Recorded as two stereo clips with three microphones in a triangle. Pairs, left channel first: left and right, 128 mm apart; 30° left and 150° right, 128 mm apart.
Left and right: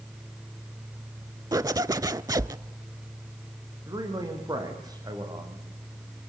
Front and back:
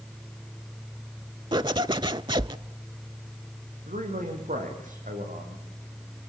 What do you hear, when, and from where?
1.5 s a zipper: 130° right, 0.5 m
3.9 s a man speaking: 150° right, 6.5 m